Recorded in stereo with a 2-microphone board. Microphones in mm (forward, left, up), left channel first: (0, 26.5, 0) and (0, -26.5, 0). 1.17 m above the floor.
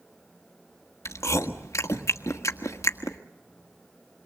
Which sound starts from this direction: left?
Chewing, at 1.1 s.